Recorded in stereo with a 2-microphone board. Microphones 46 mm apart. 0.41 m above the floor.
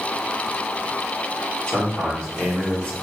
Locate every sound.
1.7 s a man speaking: 25° left (ahead or behind), 1.1 m